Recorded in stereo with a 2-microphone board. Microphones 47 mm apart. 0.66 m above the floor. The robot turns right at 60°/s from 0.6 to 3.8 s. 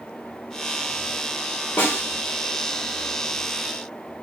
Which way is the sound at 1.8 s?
50° left (ahead or behind).